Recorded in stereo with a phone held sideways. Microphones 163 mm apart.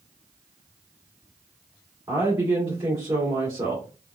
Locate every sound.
2.1 s a woman speaking: 20° right (ahead or behind), 2 m